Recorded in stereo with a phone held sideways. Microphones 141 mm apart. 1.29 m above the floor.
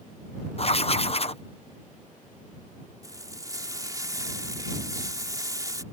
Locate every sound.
0.6 s writing: 45° left (ahead or behind)
3.0 s frying: 25° right (ahead or behind)